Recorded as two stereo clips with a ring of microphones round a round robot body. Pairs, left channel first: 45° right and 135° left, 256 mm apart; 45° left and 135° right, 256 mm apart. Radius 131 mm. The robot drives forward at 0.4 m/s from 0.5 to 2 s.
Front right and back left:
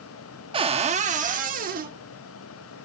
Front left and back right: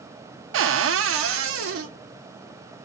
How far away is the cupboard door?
About 0.6 m.